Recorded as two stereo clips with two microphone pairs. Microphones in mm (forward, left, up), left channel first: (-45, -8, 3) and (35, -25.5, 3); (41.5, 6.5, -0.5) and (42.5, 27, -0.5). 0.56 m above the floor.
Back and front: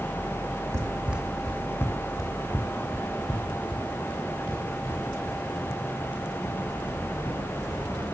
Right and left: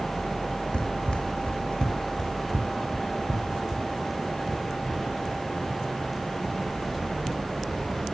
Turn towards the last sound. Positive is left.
turn(degrees=175)